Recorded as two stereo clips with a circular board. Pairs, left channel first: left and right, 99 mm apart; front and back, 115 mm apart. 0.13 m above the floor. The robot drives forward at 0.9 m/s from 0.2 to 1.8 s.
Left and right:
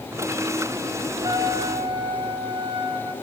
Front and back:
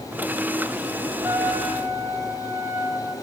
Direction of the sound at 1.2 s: 105° right.